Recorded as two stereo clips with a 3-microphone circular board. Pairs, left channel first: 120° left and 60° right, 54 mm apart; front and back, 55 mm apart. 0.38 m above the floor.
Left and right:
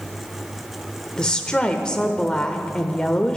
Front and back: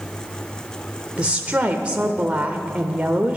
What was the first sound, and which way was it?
A woman speaking, 170° left.